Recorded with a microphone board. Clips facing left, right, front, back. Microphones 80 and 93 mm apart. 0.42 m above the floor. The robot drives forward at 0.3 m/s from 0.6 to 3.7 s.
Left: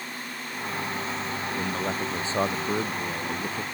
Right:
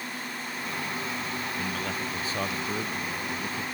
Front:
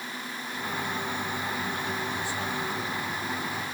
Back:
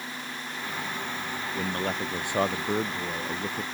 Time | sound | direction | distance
1.6 | a man speaking | 150° left | ?